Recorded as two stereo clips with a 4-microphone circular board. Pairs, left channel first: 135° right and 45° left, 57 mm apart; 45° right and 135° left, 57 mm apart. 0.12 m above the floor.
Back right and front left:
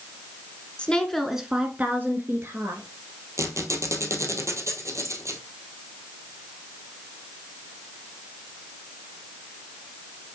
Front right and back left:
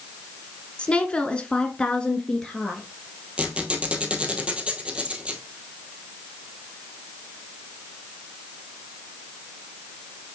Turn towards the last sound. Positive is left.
turn(degrees=65)